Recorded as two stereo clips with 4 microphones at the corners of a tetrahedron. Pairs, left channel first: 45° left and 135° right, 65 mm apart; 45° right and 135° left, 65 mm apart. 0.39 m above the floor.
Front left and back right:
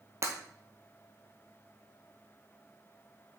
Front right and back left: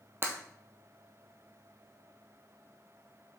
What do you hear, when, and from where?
0.2 s breaking glass: 175° right, 1.3 m